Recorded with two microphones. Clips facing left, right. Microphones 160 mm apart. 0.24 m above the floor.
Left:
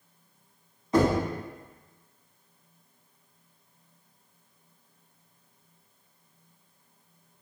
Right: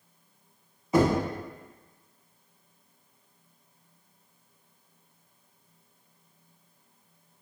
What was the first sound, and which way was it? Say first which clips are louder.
Knocking: even; 5° right (ahead or behind).